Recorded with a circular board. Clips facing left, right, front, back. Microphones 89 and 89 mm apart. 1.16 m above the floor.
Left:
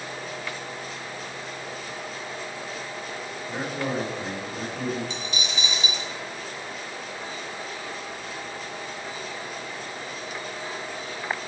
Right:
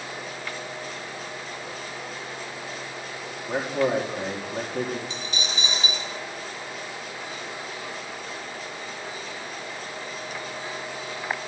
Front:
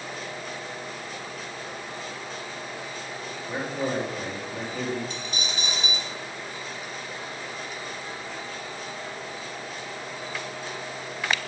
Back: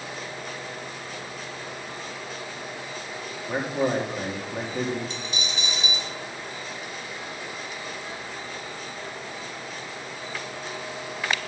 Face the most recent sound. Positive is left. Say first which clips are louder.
# even, even
turn(degrees=-35)